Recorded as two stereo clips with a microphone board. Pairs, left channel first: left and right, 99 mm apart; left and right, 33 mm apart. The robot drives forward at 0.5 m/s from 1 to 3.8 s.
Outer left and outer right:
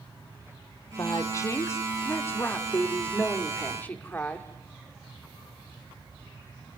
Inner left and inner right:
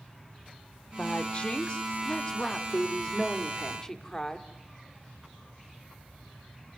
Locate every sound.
1.0 s a woman speaking: 35° left (ahead or behind), 1.3 m; by 4.5 s 15° left (ahead or behind), 2.5 m